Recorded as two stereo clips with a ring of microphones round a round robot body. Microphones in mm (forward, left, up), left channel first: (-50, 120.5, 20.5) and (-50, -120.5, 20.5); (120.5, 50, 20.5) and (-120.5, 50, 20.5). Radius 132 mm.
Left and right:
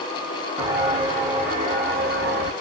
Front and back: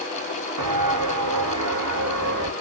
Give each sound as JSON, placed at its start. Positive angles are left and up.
{"t": 0.6, "sound": "footsteps", "azimuth_deg": -165, "distance_m": 2.0}